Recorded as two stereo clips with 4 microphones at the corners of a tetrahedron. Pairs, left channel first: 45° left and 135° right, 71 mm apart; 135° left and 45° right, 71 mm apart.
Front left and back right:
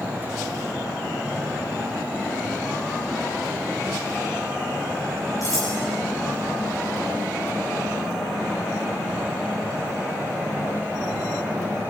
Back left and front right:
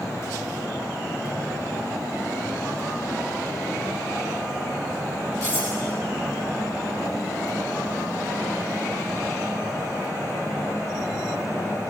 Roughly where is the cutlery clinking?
Left.